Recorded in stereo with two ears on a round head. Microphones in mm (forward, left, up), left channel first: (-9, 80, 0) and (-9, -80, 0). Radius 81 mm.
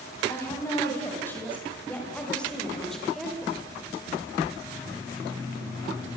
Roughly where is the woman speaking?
Centre.